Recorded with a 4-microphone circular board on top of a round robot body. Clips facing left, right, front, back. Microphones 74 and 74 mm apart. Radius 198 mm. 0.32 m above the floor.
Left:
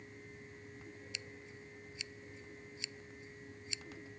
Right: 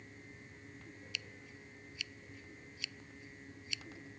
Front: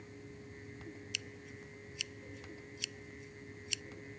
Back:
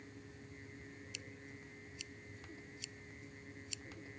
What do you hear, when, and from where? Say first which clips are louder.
1.1 s scissors: even, front 4 dB; 25° left